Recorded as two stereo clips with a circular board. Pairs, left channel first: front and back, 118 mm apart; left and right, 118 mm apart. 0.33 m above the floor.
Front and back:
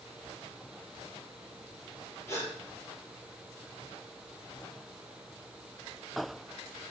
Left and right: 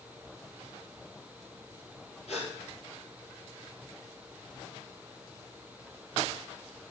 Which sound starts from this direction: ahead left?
A gasp, at 2.3 s.